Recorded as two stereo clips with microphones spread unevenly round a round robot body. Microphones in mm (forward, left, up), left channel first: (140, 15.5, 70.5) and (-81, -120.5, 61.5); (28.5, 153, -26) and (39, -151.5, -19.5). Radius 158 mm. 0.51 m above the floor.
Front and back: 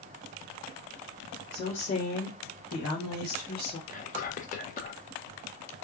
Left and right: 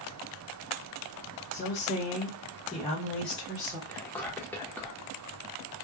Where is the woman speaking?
80° left, 1.6 m; by 3.8 s 5° right, 1.6 m.